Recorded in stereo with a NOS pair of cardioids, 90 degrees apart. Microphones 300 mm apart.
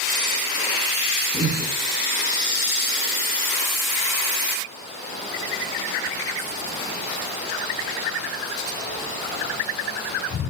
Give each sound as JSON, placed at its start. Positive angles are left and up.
{"t": 1.3, "sound": "breathing", "azimuth_deg": -25, "distance_m": 5.0}